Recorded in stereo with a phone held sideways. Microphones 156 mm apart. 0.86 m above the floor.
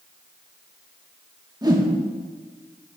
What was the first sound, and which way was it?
A whoosh, 25° right (ahead or behind).